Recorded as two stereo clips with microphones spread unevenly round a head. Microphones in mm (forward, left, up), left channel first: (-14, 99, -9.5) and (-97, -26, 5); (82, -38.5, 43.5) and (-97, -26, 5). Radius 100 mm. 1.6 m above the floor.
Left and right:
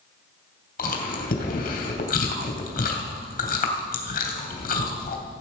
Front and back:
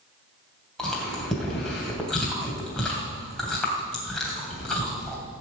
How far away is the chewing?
About 2.5 m.